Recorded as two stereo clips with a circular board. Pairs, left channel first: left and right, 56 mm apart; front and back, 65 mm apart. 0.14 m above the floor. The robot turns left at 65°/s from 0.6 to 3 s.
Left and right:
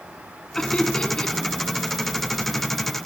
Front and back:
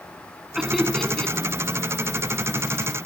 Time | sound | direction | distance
0.6 | laughter | 110° left | 1.1 m